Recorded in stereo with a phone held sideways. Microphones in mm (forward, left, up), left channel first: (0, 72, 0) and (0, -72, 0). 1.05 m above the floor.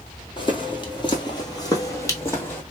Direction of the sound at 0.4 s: 35° left (ahead or behind).